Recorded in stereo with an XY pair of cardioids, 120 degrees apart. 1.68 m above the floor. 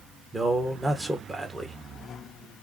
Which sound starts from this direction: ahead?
A man speaking, at 0.3 s.